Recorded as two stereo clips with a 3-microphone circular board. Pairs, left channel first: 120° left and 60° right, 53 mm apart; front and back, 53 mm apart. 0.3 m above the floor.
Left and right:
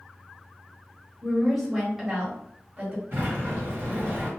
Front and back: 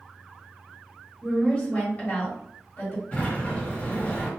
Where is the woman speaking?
50° left, 1.2 m; by 3.0 s 10° right, 1.6 m.